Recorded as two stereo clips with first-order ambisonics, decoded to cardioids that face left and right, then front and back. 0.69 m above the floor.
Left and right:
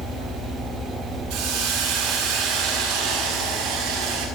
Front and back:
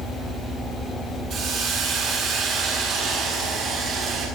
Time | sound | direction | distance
1.3 | a hiss | 125° right | 9.5 m